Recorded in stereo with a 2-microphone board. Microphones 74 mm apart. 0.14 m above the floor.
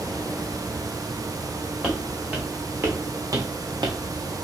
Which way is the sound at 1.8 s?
15° right (ahead or behind).